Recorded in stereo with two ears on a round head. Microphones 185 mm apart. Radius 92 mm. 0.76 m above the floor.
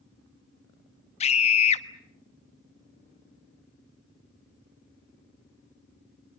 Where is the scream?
30° left (ahead or behind), 1.2 m.